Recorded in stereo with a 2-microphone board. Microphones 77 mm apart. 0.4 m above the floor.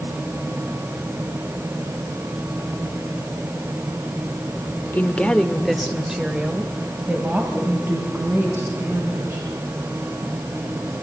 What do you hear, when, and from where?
4.9 s a woman speaking: 25° left (ahead or behind), 1.2 m; by 9.5 s 30° right (ahead or behind), 5 m